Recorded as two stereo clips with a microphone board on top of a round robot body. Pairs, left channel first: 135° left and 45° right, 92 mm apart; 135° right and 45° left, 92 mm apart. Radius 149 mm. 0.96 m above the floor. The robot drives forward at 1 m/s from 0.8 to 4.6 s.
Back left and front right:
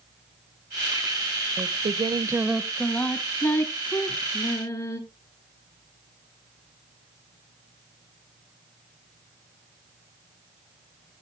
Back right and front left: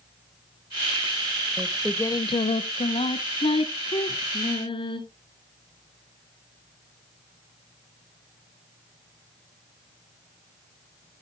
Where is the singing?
40° right, 0.8 m; by 5.0 s 170° right, 2.5 m.